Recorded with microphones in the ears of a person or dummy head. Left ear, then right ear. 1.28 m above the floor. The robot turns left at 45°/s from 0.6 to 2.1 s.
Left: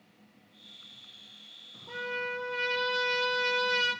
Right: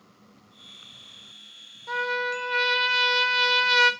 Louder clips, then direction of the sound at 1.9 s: Right 8 dB; 45° right (ahead or behind).